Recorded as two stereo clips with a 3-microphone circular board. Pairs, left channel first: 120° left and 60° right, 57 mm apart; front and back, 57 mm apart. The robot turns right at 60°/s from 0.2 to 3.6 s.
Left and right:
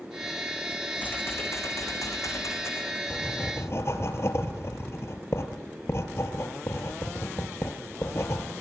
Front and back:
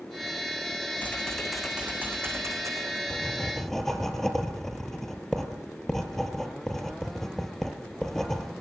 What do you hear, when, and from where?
1.0 s typing on a keyboard: 60° left, 5.5 m; by 3.0 s straight behind, 5.5 m
3.1 s writing: 55° left, 2.5 m; by 8.5 s 85° left, 2.5 m